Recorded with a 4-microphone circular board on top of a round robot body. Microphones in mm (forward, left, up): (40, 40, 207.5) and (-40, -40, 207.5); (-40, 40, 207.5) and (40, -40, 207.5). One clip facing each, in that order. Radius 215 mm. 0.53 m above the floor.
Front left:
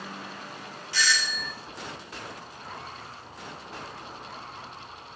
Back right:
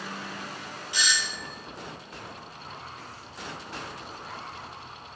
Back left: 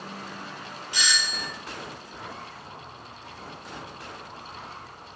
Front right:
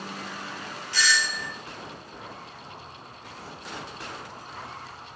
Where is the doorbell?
Straight behind, 1.2 m.